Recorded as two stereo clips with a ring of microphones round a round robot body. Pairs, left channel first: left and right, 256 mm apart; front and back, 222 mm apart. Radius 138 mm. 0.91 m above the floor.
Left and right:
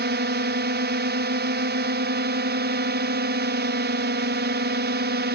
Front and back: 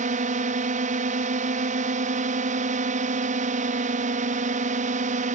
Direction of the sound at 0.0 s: 130° right.